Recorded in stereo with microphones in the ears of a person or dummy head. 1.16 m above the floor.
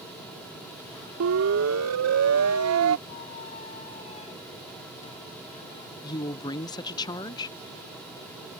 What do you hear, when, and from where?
1.2 s a siren: 70° right (ahead or behind); by 3.0 s 75° right (ahead or behind)
3.1 s a squeak: 40° left (ahead or behind)
6.0 s a woman speaking: 15° left (ahead or behind)